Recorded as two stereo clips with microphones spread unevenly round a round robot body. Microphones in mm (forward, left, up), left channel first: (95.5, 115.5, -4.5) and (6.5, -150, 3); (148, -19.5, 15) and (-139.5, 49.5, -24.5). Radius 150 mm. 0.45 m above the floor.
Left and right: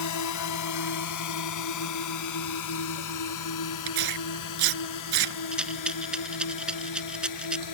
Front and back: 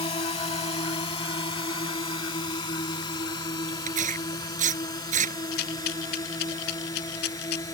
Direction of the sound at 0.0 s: 60° left.